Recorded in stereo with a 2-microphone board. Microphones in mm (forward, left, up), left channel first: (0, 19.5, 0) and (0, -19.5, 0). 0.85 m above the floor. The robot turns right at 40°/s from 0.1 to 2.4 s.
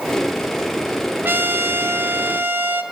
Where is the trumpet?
115° right, 1.9 m; by 2.8 s 70° right, 1.9 m.